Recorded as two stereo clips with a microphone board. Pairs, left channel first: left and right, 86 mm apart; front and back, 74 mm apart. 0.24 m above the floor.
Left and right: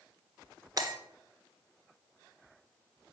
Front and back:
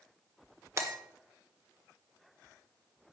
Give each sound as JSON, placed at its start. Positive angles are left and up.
{"t": 0.8, "sound": "breaking glass", "azimuth_deg": -130, "distance_m": 1.3}